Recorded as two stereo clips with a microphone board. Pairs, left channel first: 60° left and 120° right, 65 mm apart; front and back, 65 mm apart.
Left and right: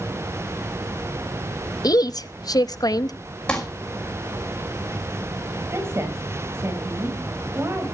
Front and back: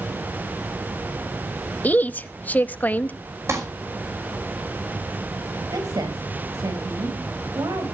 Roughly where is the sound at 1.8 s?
Ahead left.